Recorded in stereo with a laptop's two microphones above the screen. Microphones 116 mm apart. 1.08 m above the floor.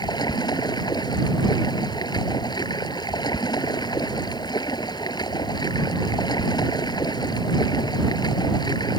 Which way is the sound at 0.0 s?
35° left (ahead or behind).